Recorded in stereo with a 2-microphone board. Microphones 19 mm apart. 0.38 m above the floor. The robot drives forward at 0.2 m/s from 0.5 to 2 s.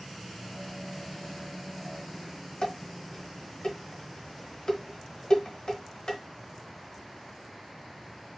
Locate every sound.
2.6 s dishes clattering: 55° left (ahead or behind), 1.0 m